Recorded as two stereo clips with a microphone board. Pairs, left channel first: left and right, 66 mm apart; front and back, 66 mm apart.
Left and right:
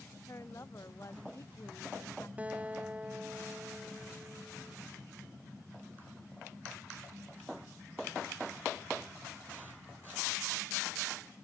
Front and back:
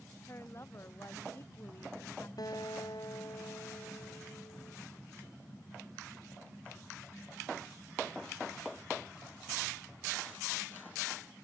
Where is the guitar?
20° right.